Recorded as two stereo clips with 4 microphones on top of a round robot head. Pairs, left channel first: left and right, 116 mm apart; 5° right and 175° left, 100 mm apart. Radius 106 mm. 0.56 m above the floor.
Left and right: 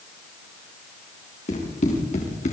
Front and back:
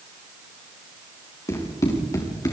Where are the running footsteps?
55° left, 6 m.